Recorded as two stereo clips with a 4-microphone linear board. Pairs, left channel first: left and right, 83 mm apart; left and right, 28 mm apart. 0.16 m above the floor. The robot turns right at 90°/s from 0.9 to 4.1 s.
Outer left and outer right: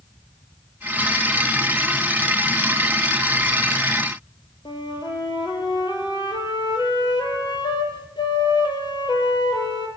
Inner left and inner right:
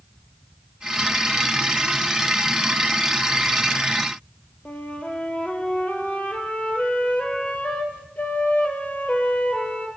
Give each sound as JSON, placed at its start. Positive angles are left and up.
{"t": 4.7, "sound": "a flute", "side_deg": 65, "distance_m": 4.5}